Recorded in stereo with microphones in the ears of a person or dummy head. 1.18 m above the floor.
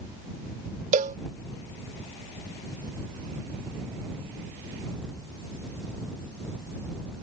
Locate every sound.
0.9 s a cowbell: 40° right (ahead or behind)